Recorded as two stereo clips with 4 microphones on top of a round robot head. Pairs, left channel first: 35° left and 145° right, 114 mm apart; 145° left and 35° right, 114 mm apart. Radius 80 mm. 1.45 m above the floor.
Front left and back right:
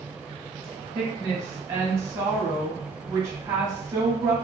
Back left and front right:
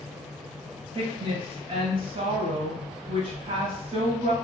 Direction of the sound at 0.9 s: 70° right.